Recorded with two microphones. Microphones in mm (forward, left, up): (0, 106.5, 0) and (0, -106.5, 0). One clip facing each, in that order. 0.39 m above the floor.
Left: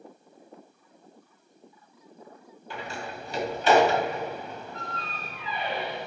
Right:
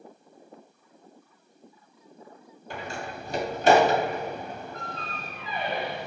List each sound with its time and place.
2.7 s a door slam: 45° right (ahead or behind), 1.7 m